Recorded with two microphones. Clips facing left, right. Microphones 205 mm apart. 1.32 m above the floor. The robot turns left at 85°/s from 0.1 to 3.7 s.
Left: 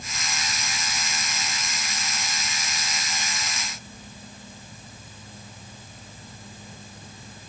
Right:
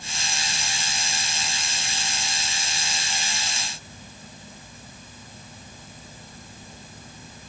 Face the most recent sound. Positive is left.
No sound to turn to.